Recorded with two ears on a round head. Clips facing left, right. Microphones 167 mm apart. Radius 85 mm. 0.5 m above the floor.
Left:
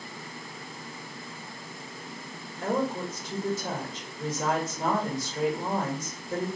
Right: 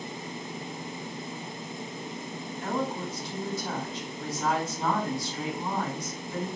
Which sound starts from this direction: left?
A woman speaking, at 2.6 s.